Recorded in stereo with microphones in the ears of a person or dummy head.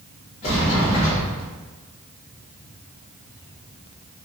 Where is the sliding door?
40° left (ahead or behind), 1.2 m.